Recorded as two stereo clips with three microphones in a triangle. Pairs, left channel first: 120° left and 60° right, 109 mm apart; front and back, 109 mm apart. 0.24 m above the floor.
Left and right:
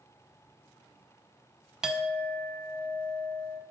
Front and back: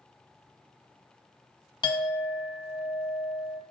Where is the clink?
20° left, 0.7 m.